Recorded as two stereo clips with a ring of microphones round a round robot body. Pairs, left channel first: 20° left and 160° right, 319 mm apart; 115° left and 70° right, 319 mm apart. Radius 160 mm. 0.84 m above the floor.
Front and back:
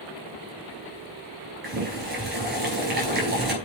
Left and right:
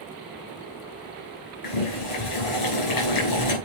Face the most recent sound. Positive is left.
turn(degrees=140)